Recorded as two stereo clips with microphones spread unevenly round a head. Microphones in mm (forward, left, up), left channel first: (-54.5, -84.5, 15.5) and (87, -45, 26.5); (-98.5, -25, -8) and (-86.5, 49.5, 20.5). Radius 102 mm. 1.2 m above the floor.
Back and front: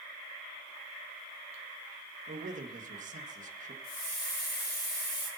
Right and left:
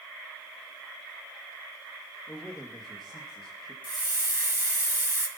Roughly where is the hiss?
Behind left.